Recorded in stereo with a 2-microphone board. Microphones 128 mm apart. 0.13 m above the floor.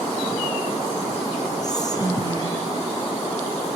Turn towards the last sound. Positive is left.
turn(degrees=30)  # may be behind; listen again after turning